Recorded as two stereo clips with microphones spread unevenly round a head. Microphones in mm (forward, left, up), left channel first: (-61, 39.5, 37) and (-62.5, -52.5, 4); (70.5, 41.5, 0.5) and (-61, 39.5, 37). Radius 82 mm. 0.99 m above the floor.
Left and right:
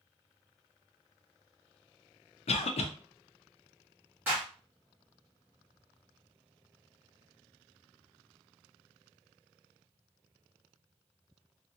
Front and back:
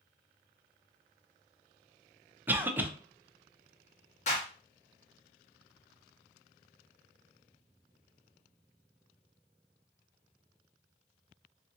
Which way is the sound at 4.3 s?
25° right.